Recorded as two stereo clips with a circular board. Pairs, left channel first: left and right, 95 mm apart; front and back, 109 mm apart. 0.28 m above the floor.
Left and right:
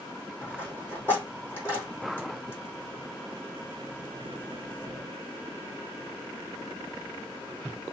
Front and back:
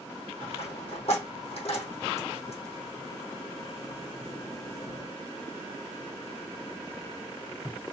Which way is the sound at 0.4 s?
25° left.